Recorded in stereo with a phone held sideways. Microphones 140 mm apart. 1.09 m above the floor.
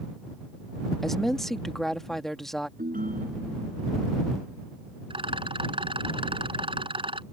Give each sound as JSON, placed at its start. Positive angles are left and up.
{"t": 1.0, "sound": "a woman speaking", "side_deg": 5}
{"t": 2.8, "sound": "a ringtone", "side_deg": -80}
{"t": 5.1, "sound": "a rattle", "side_deg": -40}